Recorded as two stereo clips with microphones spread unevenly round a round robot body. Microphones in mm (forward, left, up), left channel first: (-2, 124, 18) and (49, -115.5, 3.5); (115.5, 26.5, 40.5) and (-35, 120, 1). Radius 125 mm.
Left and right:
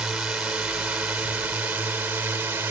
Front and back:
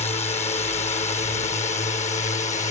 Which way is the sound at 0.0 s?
5° left.